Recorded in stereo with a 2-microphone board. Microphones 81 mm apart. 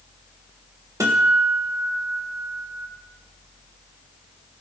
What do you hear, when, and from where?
1.0 s a guitar: 40° right (ahead or behind), 1.3 m